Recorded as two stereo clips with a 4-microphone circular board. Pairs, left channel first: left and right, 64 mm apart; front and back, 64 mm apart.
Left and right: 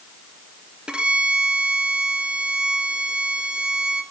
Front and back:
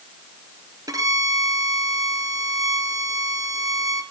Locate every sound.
0.9 s a violin: 165° right, 1.8 m